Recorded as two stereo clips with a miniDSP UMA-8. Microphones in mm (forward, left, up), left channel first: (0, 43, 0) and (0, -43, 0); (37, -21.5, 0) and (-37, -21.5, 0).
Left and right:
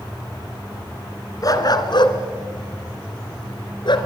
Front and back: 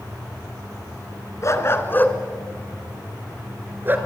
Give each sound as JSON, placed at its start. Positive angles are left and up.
{"t": 1.4, "sound": "a dog barking", "azimuth_deg": 45, "distance_m": 1.9}